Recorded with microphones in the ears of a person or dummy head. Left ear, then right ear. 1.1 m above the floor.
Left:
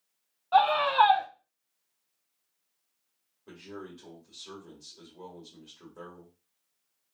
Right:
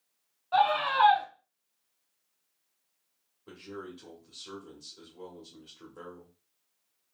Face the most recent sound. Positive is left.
turn(degrees=0)  # may be behind; listen again after turning